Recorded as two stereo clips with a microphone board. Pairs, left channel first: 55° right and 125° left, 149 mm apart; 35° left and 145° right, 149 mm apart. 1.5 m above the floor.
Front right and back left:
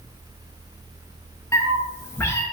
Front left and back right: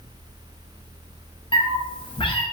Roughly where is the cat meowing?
Ahead.